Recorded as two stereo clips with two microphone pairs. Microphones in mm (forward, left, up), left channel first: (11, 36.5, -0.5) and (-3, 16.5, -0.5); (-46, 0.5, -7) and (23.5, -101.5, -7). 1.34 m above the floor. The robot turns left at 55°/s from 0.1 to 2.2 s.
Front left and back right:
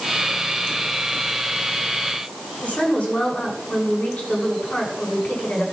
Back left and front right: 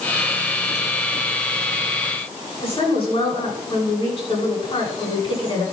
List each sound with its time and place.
2.6 s a woman speaking: 80° left, 10 m